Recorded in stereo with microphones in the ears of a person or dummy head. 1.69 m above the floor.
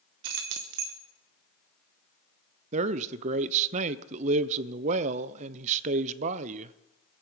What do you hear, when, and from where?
0.2 s keys jangling: 55° right (ahead or behind), 1.0 m
2.7 s a man speaking: 35° right (ahead or behind), 0.6 m